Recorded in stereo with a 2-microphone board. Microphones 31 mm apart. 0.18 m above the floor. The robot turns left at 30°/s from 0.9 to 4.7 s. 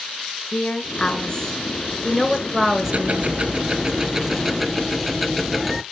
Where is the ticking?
120° right, 0.6 m; by 5.8 s straight behind, 0.6 m.